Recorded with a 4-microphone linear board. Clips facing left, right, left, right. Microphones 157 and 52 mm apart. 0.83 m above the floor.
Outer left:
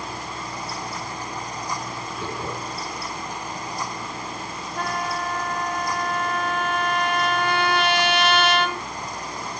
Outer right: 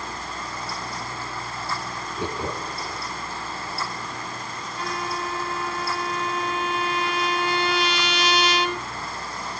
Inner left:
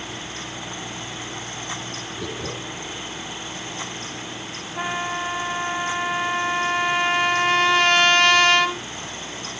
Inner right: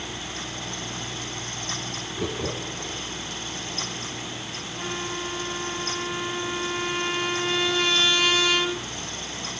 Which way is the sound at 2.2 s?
20° right (ahead or behind).